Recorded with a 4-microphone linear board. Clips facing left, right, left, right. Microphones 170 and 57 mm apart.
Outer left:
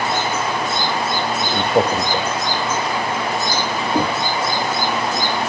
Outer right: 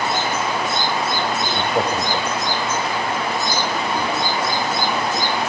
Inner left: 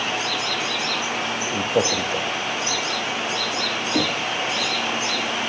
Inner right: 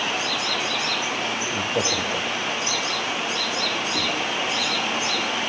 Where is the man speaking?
25° left (ahead or behind), 3.5 m.